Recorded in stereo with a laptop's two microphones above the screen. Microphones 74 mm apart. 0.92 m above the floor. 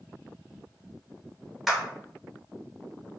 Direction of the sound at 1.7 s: Centre (ahead or behind).